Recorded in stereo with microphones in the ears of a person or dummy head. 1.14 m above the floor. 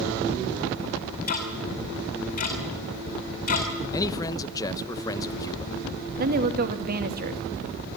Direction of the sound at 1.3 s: 45° left (ahead or behind).